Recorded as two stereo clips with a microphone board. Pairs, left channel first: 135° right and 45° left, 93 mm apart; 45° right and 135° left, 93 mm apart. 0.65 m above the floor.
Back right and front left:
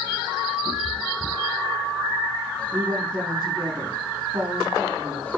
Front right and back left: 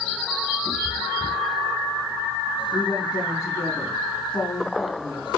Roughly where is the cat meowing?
Ahead.